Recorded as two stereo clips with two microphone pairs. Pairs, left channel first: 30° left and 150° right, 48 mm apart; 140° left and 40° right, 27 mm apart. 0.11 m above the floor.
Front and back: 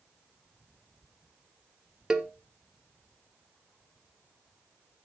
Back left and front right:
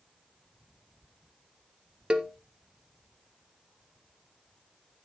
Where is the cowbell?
75° right, 1.6 m.